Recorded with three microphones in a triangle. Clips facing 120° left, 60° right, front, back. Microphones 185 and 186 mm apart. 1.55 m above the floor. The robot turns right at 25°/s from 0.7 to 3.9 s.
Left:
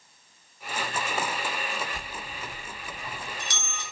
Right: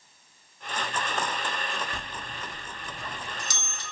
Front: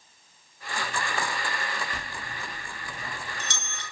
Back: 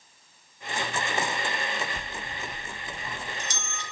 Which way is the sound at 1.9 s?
50° right.